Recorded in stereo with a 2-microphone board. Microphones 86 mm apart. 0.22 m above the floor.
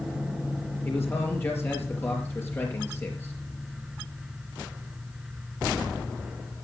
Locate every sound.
0.8 s a man speaking: 25° left (ahead or behind), 5 m